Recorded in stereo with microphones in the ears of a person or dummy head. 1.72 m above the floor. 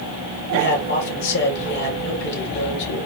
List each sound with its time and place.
0.5 s a man speaking: 60° left (ahead or behind), 2 m